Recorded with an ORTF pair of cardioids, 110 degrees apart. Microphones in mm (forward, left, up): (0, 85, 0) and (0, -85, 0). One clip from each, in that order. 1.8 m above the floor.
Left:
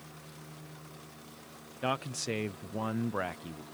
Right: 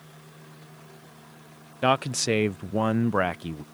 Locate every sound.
1.8 s a man speaking: 50° right